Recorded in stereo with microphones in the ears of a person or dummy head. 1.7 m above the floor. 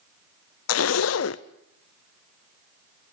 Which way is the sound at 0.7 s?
85° left.